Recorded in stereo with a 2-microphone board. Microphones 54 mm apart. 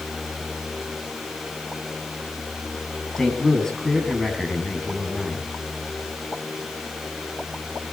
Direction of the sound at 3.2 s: 10° left (ahead or behind).